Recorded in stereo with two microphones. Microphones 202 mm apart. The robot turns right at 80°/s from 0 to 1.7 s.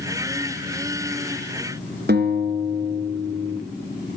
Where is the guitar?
55° right (ahead or behind), 2.5 m.